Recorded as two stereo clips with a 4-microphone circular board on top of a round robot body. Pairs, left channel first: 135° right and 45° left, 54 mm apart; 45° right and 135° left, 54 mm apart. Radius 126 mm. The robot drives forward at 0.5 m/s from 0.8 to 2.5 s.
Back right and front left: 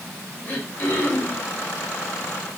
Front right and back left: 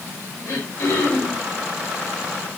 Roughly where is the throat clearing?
Right.